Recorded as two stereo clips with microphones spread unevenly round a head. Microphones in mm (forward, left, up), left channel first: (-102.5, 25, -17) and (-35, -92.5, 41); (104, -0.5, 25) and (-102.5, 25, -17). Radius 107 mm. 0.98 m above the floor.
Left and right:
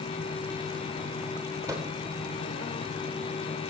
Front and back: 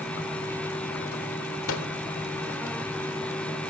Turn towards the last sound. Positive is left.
turn(degrees=20)